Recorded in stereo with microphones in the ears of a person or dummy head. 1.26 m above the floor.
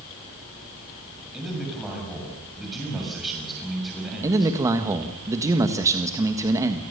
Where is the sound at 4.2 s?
15° right (ahead or behind), 1.6 m.